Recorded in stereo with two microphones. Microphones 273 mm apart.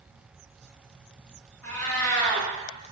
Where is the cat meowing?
10° left (ahead or behind), 0.9 m.